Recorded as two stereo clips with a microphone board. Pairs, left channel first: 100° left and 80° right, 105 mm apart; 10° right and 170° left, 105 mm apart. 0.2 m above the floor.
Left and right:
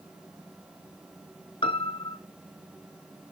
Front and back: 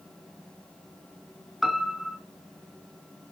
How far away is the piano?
About 0.8 m.